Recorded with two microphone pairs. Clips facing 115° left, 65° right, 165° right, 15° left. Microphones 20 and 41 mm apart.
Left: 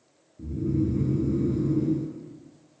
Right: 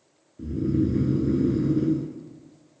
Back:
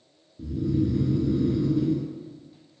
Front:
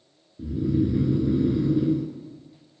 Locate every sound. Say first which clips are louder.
0.4 s snoring: right 3 dB, front 2 dB; 55° right, 0.5 m